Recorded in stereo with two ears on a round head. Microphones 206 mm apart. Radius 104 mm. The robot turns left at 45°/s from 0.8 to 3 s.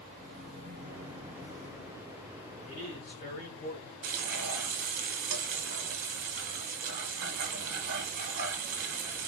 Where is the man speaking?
30° left (ahead or behind), 2 m; by 3.9 s 40° left (ahead or behind), 2 m.